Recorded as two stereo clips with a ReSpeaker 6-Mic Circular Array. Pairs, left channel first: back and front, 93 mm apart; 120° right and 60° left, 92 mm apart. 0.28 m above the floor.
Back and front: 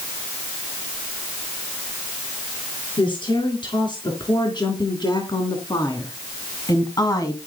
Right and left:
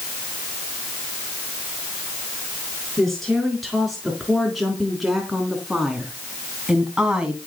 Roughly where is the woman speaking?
Behind left.